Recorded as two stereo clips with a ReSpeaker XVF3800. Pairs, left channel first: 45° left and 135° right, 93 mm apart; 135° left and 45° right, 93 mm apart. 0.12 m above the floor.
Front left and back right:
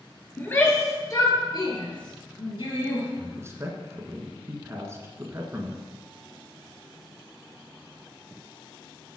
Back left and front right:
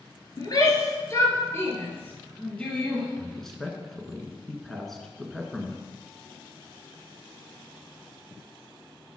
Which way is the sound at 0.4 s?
110° left.